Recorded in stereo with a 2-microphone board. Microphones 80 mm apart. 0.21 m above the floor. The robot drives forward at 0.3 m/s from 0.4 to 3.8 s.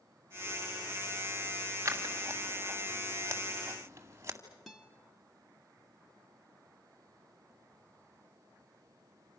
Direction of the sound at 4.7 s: Centre (ahead or behind).